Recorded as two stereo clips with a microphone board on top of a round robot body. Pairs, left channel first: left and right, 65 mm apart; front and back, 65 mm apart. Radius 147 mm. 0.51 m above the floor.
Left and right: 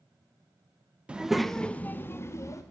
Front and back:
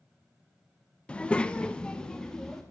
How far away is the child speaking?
About 0.7 m.